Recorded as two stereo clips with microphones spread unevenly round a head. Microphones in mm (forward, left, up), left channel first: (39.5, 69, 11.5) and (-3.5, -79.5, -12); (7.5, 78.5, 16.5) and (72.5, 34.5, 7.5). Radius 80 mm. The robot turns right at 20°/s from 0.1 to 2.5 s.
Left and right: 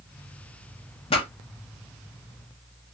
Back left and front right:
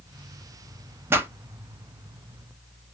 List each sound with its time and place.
1.1 s a pop: 25° left, 0.7 m; by 1.3 s 30° left, 0.7 m